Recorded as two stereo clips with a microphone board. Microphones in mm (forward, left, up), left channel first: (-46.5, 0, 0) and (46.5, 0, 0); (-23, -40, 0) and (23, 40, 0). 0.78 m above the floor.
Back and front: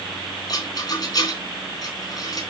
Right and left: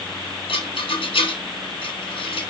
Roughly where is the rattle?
Behind right.